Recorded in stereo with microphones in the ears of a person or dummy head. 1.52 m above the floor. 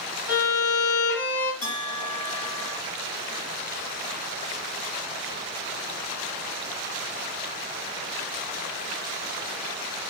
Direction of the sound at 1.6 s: 35° left (ahead or behind).